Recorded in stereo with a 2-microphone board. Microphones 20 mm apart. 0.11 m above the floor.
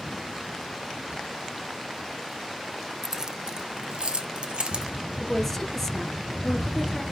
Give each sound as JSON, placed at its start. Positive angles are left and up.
{"t": 3.0, "sound": "keys jangling", "side_deg": -25, "distance_m": 1.0}
{"t": 5.2, "sound": "a woman speaking", "side_deg": 15, "distance_m": 1.7}